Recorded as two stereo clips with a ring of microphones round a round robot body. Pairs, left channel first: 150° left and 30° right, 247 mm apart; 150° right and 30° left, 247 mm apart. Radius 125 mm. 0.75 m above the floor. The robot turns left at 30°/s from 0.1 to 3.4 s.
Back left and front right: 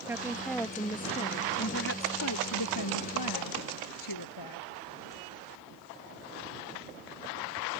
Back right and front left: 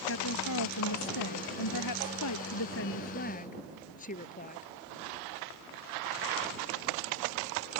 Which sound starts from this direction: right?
A woman speaking, at 0.1 s.